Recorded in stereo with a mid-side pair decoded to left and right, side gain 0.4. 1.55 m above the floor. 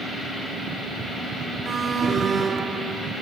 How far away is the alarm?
About 6 m.